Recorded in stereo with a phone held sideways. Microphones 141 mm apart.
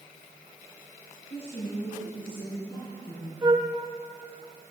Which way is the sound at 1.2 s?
40° left (ahead or behind).